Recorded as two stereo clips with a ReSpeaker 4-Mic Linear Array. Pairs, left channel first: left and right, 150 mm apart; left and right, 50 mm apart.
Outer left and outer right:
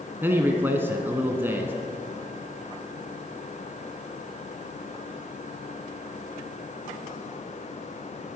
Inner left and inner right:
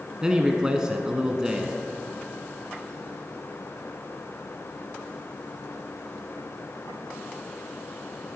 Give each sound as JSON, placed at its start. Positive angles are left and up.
{"t": 0.2, "sound": "a man speaking", "side_deg": -15, "distance_m": 1.1}